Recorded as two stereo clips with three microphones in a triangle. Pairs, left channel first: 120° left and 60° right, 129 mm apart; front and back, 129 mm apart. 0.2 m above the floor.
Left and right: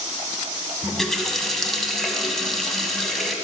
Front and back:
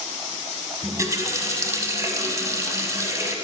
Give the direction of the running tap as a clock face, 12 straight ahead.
5 o'clock.